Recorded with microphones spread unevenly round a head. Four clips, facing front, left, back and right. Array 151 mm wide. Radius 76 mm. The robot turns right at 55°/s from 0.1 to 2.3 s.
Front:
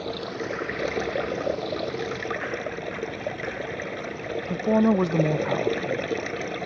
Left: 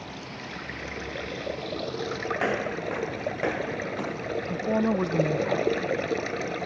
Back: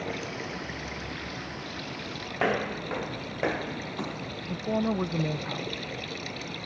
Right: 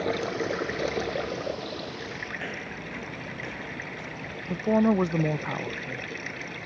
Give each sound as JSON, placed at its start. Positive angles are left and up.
{"t": 0.0, "sound": "running water", "azimuth_deg": -75}
{"t": 2.4, "sound": "footsteps", "azimuth_deg": 150}
{"t": 4.5, "sound": "a woman speaking", "azimuth_deg": -25}